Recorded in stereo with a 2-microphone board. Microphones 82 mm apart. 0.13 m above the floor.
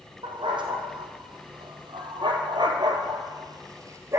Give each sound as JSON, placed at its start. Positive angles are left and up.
{"t": 0.2, "sound": "a dog barking", "side_deg": -75, "distance_m": 2.5}